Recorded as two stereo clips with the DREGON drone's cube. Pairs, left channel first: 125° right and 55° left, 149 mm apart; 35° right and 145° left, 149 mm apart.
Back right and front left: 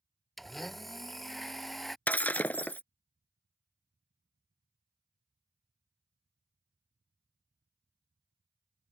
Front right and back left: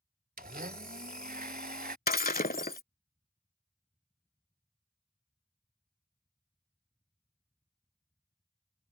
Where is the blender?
145° left.